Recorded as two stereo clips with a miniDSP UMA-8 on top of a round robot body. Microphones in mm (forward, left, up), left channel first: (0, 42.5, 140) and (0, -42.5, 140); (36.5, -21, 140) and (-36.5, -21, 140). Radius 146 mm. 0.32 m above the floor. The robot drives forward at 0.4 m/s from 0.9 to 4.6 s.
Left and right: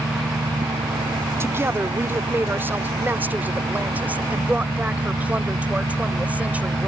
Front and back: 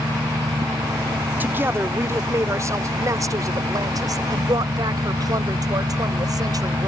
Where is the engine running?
125° right.